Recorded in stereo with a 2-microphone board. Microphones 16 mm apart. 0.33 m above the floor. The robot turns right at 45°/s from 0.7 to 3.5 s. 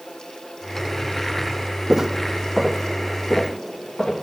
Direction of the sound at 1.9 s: 30° right (ahead or behind).